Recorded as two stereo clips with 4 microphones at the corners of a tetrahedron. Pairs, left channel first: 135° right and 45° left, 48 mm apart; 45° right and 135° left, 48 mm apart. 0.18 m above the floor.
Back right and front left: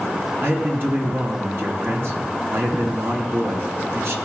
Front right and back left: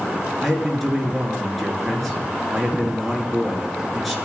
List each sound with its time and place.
0.4 s a man speaking: 45° left, 3 m